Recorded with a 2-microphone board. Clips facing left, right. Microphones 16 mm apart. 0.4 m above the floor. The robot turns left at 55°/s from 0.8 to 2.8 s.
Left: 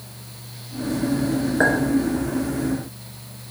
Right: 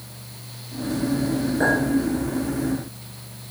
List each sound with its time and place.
1.6 s a clink: 45° left (ahead or behind), 3 m; by 1.8 s 35° left (ahead or behind), 3 m